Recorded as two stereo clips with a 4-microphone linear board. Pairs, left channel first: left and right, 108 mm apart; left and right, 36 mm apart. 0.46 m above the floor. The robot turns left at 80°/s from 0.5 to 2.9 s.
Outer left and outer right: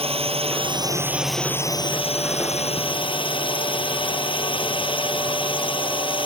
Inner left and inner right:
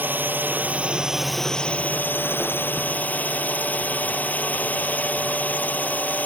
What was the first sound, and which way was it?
A drone, 115° right.